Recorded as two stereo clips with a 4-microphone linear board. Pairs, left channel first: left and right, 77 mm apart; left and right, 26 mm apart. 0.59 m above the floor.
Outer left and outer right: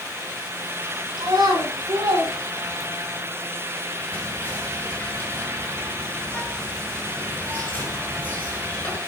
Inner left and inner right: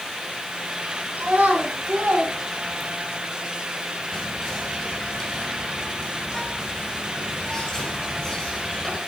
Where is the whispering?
20° left (ahead or behind), 6 m.